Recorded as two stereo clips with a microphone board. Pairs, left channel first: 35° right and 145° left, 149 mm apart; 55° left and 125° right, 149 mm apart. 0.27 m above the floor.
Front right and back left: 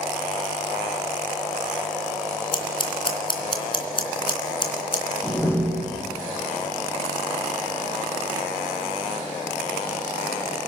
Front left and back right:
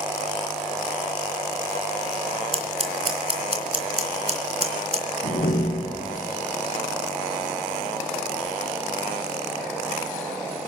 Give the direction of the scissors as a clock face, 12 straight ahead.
3 o'clock.